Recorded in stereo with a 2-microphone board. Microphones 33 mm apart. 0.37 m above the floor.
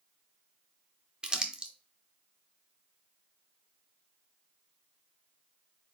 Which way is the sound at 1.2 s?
25° right (ahead or behind).